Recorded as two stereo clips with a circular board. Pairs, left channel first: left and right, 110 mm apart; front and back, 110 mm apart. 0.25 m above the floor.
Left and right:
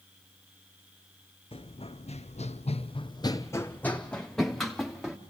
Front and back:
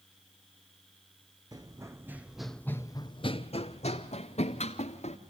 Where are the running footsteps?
125° left, 1.1 m; by 5.2 s 5° right, 1.9 m.